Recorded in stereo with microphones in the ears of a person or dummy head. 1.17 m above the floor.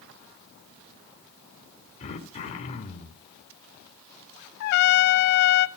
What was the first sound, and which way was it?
Throat clearing, 45° left (ahead or behind).